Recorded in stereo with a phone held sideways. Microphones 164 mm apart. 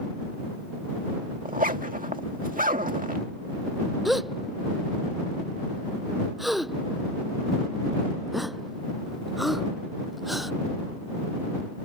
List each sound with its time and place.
1.4 s a zipper: 55° right (ahead or behind)
4.0 s a gasp: centre (ahead or behind)